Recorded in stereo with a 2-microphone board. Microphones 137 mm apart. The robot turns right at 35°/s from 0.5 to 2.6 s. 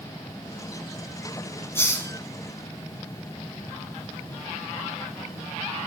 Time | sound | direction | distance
1.8 | a hiss | 20° left (ahead or behind) | 0.9 m